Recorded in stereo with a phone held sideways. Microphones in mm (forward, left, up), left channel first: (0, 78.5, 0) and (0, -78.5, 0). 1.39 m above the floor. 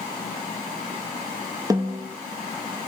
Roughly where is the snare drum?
Right.